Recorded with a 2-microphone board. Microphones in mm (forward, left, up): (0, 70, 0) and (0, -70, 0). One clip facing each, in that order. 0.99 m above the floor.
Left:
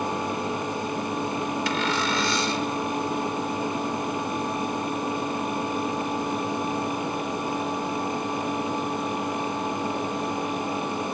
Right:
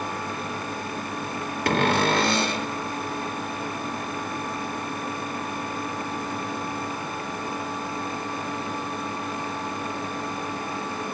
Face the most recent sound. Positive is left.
turn(degrees=-60)  # may be behind; listen again after turning